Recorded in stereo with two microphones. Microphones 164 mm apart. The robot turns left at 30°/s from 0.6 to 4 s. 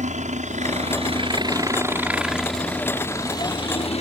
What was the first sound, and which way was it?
A helicopter, 45° right (ahead or behind).